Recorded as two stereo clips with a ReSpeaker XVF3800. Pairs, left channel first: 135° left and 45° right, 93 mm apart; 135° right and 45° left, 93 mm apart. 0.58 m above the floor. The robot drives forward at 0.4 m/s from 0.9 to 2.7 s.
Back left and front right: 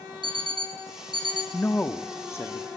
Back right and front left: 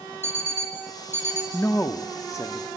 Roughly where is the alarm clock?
Ahead.